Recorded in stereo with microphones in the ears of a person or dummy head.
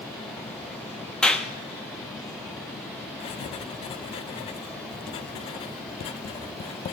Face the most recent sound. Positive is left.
turn(degrees=30)  # may be behind; listen again after turning